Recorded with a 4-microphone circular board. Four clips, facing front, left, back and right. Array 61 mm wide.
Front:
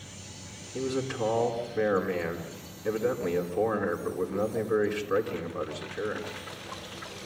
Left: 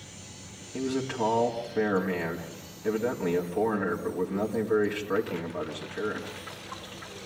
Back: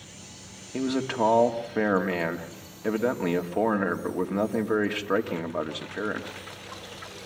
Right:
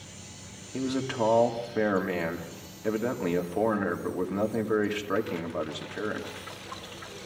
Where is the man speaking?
165° right, 2 m.